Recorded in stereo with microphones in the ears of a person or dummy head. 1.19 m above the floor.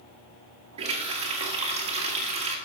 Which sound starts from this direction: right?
A running tap, at 0.8 s.